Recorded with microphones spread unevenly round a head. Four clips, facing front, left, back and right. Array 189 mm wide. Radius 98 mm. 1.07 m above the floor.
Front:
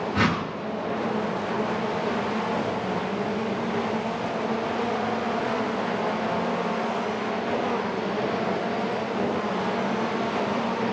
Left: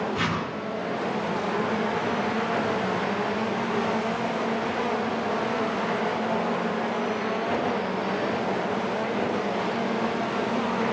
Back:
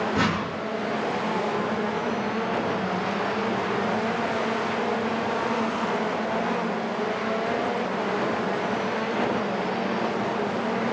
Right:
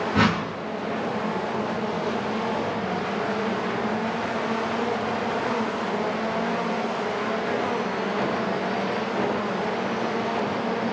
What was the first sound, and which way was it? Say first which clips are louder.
A whoosh: right 6 dB, front 3 dB; 100° right.